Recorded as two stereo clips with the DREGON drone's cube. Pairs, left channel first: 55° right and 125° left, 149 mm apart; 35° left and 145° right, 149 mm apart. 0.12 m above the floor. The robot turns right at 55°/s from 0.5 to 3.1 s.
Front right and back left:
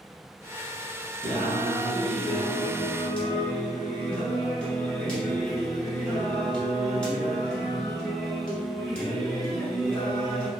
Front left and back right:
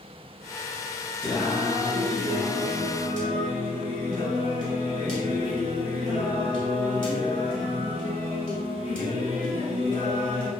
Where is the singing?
120° left, 0.8 m; by 10.5 s 140° right, 0.8 m.